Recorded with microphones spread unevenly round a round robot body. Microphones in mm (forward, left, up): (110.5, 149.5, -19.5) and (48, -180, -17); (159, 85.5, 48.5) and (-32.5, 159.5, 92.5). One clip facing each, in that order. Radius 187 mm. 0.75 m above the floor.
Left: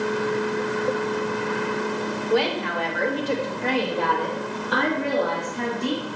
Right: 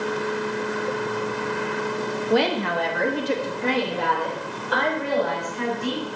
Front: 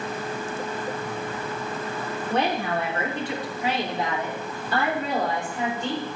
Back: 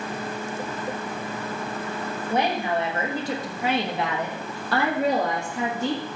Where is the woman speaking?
110° right, 1.4 m; by 6.1 s 125° left, 2.5 m.